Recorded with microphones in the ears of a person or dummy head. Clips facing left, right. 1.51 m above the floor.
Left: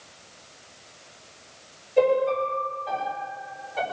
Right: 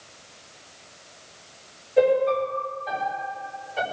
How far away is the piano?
About 6 m.